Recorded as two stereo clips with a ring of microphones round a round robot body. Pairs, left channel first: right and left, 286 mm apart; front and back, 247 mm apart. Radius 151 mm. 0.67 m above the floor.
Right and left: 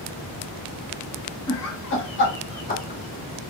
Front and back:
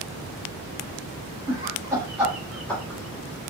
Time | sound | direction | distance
1.5 | laughter | 110° right | 1.5 m